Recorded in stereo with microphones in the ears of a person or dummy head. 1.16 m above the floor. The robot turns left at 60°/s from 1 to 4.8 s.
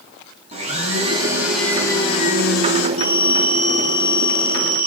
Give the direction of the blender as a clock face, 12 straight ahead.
5 o'clock.